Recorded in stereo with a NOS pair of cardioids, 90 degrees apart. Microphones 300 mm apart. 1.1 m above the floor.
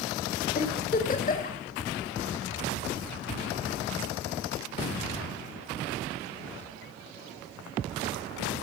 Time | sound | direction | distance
0.6 | a giggle | 30° left | 3 m